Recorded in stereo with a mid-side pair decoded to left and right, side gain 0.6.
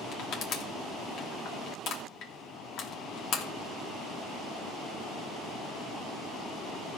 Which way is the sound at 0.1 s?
60° left.